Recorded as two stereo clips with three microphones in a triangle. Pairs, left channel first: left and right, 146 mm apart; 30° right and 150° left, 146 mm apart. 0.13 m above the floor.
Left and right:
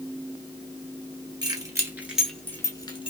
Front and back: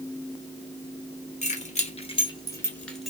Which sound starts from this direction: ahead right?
Keys jangling, at 1.4 s.